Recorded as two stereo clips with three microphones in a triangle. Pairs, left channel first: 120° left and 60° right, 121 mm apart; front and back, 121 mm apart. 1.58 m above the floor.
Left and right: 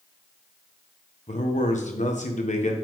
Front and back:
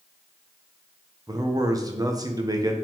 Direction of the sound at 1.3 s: 120° left.